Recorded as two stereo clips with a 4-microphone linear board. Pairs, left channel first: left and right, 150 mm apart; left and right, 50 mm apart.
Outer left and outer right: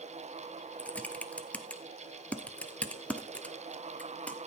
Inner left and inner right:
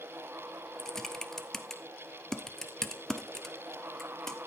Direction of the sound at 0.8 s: 10° left (ahead or behind).